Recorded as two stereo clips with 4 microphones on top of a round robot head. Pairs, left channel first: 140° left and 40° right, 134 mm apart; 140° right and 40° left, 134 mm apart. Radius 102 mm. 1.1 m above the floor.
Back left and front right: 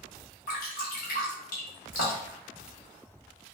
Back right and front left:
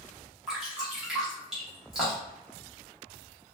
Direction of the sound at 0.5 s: 125° left.